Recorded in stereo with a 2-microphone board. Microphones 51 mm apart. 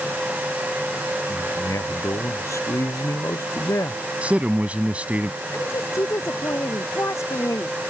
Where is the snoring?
I don't hear snoring.